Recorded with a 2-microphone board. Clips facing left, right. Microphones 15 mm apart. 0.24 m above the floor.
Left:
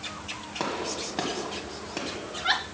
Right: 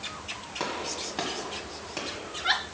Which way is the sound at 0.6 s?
5° left (ahead or behind).